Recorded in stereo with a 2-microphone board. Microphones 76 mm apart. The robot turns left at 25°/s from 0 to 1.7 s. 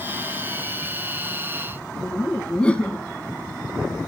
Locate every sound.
2.0 s laughter: 15° left (ahead or behind), 1.4 m